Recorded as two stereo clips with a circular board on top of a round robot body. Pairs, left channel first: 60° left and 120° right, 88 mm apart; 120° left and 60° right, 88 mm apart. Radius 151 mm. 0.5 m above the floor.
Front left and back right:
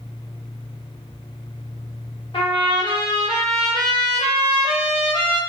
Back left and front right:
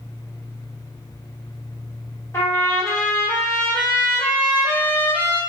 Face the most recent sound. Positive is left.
turn(degrees=60)